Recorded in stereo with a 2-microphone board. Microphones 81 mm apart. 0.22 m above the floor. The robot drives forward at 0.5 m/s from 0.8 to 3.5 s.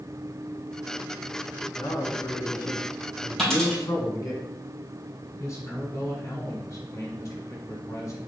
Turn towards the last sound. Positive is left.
turn(degrees=40)  # may be behind; listen again after turning